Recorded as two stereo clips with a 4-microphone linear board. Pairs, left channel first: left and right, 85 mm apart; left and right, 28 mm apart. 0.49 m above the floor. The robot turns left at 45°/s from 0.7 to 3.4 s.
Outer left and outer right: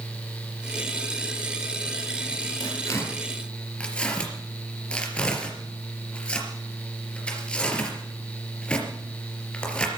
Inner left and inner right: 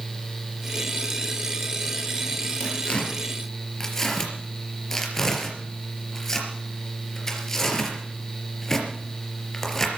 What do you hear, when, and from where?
2.6 s tearing paper: 45° left (ahead or behind), 3.5 m; by 9.9 s 10° left (ahead or behind), 3.5 m